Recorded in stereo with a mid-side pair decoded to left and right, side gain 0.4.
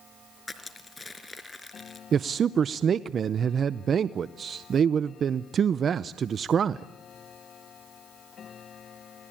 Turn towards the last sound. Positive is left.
turn(degrees=-60)